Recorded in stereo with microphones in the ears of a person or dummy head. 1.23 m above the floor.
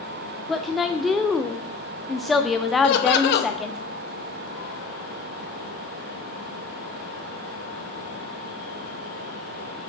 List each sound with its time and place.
0.5 s a woman speaking: centre (ahead or behind), 0.6 m
2.8 s laughter: 60° left (ahead or behind), 1.1 m